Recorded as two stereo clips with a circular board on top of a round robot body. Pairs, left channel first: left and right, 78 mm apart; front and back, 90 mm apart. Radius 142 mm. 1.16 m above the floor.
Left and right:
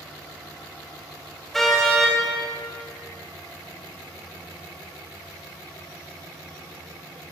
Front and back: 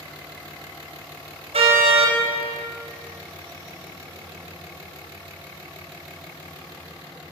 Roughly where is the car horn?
Behind.